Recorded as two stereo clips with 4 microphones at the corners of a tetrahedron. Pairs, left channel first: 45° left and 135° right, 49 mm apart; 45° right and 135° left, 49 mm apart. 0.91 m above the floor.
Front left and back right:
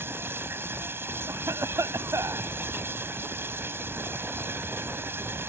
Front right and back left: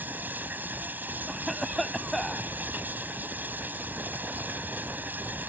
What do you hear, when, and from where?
0.0 s running water: 175° right
1.3 s a cough: 135° right